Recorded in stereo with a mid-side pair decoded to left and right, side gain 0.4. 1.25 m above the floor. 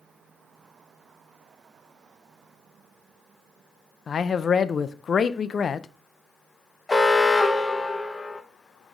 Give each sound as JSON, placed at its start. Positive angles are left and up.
{"t": 4.1, "sound": "a man speaking", "azimuth_deg": 50, "distance_m": 0.5}
{"t": 6.9, "sound": "an alarm", "azimuth_deg": 25, "distance_m": 0.9}